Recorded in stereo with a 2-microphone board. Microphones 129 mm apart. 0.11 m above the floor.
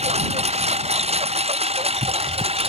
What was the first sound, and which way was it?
A lawn mower, 55° right (ahead or behind).